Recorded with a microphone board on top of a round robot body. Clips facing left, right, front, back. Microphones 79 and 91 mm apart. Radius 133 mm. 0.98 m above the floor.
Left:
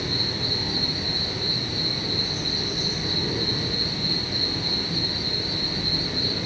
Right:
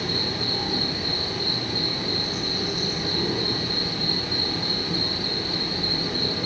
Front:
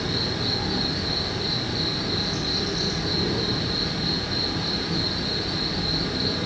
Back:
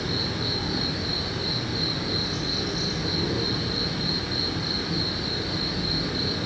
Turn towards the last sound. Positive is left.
turn(degrees=-90)